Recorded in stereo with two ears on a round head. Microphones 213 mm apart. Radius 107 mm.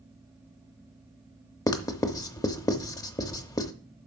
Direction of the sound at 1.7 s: 15° left (ahead or behind).